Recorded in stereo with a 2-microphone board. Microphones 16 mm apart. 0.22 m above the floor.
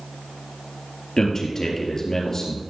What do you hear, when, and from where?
1.2 s a man speaking: 35° left (ahead or behind), 3.5 m